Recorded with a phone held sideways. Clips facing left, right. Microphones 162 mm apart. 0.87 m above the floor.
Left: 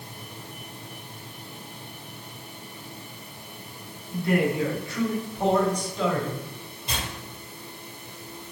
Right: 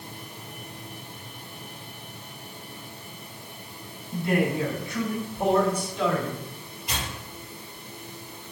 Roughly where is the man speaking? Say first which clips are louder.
Left 1 dB; right.